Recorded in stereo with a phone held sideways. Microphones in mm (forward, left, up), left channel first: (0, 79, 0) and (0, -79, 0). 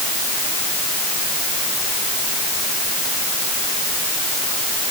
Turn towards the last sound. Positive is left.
No sound to turn to.